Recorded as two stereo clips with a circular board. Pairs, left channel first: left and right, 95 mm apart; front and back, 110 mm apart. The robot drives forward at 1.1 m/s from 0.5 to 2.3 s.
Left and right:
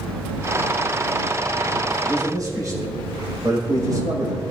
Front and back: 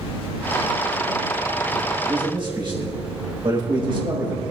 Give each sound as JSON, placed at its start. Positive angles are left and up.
{"t": 2.0, "sound": "a man speaking", "azimuth_deg": -140, "distance_m": 5.5}